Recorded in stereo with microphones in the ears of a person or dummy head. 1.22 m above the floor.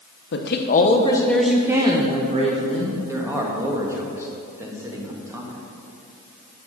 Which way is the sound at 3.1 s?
15° right (ahead or behind).